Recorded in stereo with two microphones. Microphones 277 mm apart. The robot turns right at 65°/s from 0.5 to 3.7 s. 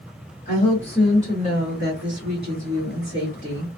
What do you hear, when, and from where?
0.5 s a woman speaking: 150° left, 1.4 m; by 3.8 s straight ahead, 1.4 m